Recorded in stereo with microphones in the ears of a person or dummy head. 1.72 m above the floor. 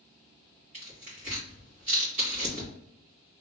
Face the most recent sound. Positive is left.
turn(degrees=-40)  # may be behind; listen again after turning